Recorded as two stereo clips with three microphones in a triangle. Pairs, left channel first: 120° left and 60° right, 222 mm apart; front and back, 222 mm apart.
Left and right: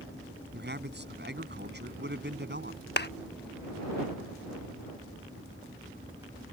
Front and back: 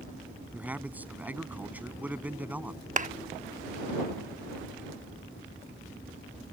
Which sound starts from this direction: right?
A man speaking, at 0.5 s.